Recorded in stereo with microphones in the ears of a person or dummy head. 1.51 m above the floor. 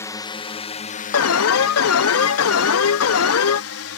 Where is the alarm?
70° left (ahead or behind).